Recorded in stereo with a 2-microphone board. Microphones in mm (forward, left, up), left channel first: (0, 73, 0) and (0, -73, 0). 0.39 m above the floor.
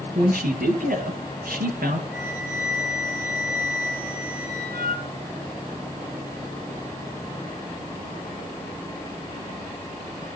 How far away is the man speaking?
About 6 m.